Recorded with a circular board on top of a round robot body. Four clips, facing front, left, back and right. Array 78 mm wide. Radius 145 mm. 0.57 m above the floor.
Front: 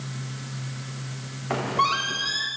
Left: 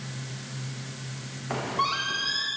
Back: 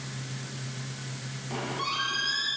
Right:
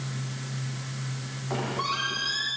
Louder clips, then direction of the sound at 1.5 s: Left 2 dB, front 9 dB; 10° left.